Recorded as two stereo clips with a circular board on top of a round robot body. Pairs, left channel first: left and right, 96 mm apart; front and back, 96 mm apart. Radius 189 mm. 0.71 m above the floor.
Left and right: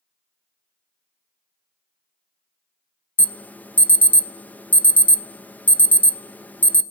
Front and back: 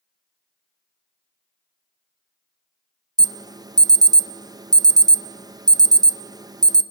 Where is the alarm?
155° left, 0.6 m.